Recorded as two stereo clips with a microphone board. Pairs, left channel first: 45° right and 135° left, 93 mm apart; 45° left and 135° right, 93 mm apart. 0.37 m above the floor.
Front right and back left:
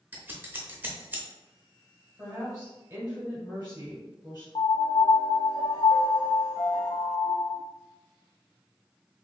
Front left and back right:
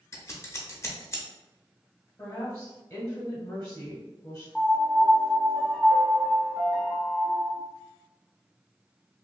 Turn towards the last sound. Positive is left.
turn(degrees=-40)